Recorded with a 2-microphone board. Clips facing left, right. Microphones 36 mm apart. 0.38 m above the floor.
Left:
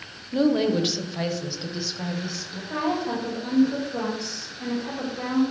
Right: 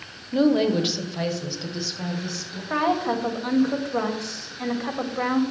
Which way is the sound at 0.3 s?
15° right (ahead or behind).